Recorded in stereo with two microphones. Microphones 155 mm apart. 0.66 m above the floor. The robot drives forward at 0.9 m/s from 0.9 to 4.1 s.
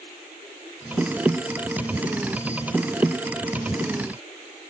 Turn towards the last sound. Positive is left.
No sound to turn to.